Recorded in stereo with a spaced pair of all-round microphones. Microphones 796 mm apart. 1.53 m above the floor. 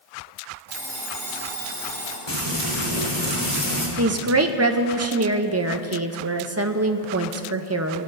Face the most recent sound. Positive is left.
turn(degrees=-20)  # may be behind; listen again after turning